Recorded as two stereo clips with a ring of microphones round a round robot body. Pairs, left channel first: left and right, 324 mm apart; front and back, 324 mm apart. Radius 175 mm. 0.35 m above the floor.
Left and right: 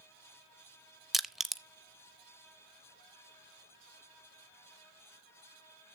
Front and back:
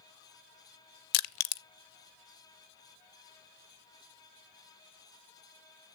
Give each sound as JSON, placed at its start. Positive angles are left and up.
{"t": 1.1, "sound": "crushing", "azimuth_deg": 0, "distance_m": 0.5}